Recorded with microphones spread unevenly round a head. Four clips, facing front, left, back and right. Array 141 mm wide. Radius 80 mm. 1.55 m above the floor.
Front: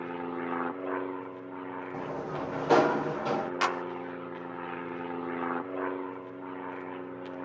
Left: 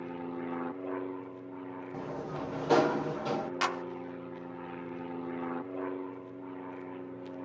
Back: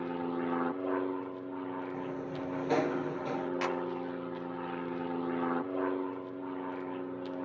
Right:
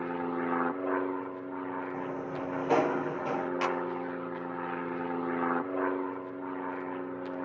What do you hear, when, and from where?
0.0 s an aircraft: 85° right
1.9 s a sliding door: 15° right
3.6 s a clap: 10° right